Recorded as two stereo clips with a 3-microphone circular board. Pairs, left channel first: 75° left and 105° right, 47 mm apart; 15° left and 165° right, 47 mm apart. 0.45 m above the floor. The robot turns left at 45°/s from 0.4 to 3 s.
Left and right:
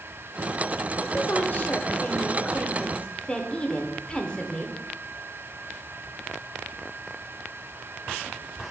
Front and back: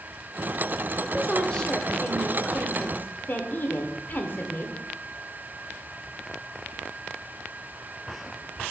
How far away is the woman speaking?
About 1.0 m.